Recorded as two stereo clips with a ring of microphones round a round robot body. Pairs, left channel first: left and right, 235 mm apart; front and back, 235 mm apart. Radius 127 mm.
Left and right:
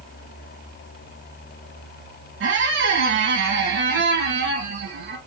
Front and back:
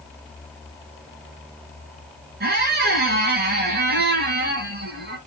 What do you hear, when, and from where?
2.4 s a squeak: 130° right, 2.5 m